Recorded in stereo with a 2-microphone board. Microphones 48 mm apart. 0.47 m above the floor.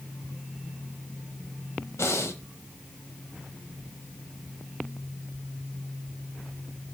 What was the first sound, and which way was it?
Breathing, 75° left (ahead or behind).